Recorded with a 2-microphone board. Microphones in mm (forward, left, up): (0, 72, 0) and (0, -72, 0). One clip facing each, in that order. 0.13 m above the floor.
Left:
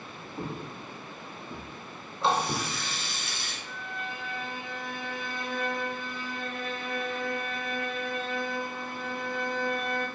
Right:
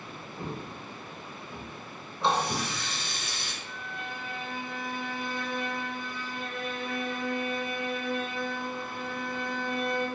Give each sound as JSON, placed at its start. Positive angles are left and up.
{"t": 0.4, "sound": "footsteps", "side_deg": 30, "distance_m": 0.7}
{"t": 2.2, "sound": "a running tap", "side_deg": 0, "distance_m": 0.8}
{"t": 3.6, "sound": "a violin", "side_deg": 40, "distance_m": 1.1}